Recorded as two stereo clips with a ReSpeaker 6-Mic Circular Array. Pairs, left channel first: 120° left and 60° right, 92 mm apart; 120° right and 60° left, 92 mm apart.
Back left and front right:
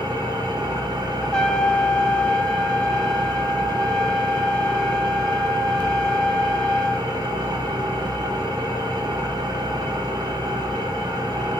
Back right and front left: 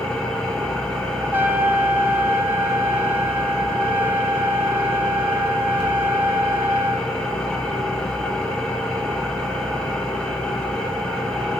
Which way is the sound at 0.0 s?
40° right.